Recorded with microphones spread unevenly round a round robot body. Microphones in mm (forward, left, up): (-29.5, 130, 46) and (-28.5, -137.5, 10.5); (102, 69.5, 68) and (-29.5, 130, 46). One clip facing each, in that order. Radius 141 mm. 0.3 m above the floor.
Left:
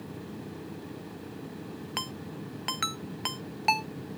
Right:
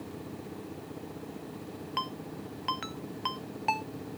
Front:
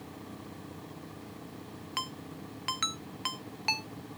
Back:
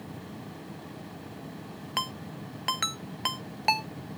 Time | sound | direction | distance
2.0 | a ringtone | 125° left | ?